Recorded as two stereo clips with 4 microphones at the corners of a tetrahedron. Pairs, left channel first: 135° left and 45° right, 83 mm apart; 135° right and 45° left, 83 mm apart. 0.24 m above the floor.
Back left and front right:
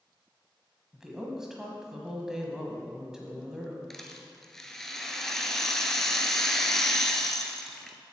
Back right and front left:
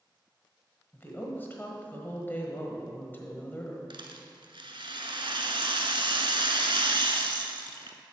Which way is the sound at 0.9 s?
120° right.